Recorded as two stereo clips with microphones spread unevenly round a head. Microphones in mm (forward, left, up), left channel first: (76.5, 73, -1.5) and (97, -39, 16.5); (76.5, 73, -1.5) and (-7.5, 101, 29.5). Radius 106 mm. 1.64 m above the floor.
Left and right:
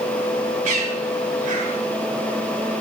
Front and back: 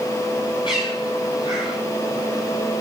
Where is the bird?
85° right, 4 m.